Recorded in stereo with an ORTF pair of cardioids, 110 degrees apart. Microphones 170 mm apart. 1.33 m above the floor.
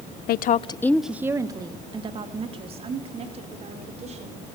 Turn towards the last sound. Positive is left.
turn(degrees=-40)